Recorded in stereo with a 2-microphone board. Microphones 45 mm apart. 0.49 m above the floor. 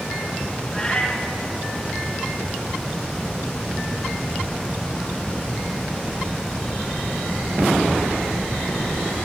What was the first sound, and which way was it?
A cat meowing, 20° left (ahead or behind).